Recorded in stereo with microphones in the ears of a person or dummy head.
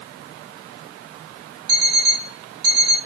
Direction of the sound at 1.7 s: 55° right (ahead or behind).